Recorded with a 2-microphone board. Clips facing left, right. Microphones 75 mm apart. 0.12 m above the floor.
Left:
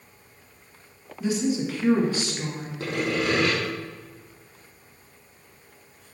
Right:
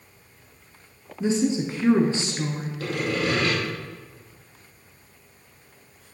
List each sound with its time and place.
1.2 s a woman speaking: 25° right (ahead or behind), 1.2 m
2.8 s sawing: 25° left (ahead or behind), 3.5 m